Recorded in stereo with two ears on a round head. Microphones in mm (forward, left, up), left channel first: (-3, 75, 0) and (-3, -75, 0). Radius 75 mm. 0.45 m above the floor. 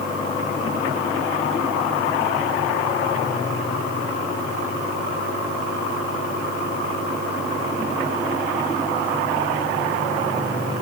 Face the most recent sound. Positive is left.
No sound to turn to.